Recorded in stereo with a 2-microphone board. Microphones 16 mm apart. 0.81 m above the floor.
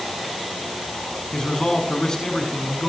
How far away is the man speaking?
About 7.5 m.